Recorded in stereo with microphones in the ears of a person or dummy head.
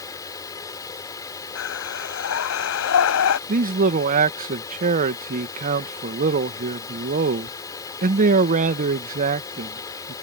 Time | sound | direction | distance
0.0 | a fan | 15° left (ahead or behind) | ?
1.6 | breathing | 75° left (ahead or behind) | ?
3.5 | a man speaking | 45° right (ahead or behind) | ?